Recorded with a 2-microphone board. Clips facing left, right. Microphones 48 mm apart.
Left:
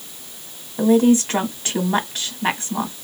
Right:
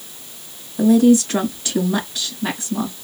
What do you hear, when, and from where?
0.8 s a woman speaking: 45° left (ahead or behind), 2.0 m